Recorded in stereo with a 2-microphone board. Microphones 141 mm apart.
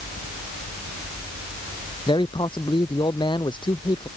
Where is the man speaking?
35° left (ahead or behind).